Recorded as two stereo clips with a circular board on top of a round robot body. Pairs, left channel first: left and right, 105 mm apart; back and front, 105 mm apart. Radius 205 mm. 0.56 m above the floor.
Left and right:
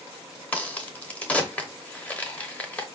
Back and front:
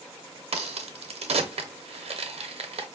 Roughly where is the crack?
Ahead.